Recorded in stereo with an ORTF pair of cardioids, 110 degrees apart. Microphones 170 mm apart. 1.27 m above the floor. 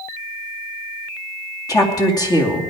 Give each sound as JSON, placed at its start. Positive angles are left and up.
{"t": 1.7, "sound": "a woman speaking", "azimuth_deg": 20, "distance_m": 2.5}